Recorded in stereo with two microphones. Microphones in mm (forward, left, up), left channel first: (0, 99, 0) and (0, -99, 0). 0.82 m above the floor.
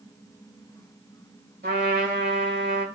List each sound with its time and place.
1.6 s a trumpet: 60° right (ahead or behind), 2.5 m